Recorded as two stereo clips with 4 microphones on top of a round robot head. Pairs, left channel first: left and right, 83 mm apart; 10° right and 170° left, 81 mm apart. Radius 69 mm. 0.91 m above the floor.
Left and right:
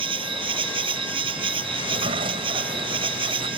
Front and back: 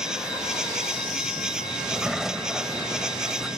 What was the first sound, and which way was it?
An insect, 105° right.